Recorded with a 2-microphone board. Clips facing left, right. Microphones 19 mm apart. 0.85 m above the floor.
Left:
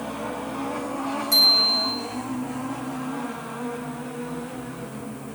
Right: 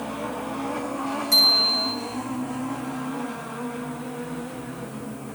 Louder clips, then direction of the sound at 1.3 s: Even; 5° right (ahead or behind).